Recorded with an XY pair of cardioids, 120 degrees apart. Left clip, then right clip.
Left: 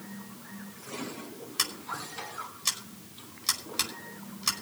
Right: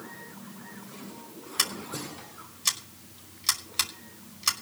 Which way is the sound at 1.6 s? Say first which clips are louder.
Right 2 dB; 10° right.